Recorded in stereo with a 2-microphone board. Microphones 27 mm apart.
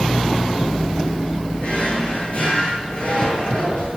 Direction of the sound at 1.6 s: 60° left (ahead or behind).